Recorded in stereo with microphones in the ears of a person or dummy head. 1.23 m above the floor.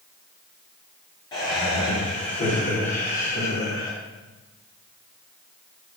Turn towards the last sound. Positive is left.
turn(degrees=65)  # may be behind; listen again after turning